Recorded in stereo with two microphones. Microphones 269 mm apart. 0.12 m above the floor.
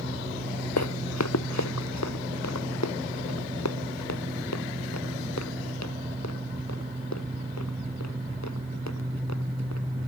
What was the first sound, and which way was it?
Running footsteps, 85° left.